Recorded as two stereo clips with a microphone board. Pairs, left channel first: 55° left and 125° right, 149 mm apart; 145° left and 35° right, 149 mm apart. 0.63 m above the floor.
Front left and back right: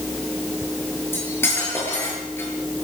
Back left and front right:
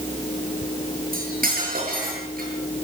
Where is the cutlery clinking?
20° right, 7.5 m.